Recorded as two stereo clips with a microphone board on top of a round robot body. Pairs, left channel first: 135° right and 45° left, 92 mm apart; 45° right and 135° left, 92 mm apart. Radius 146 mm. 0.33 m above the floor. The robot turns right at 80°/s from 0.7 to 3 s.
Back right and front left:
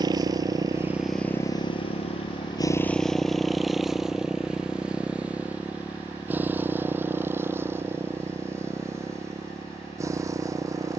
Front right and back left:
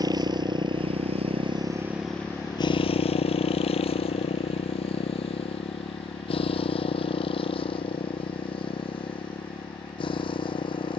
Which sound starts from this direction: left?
A motorcycle, at 0.0 s.